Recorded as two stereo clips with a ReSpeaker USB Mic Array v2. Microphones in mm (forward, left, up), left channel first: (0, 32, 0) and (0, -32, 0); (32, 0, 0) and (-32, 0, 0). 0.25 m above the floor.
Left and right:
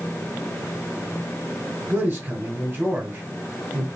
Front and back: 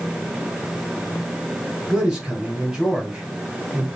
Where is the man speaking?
100° right, 1.9 m.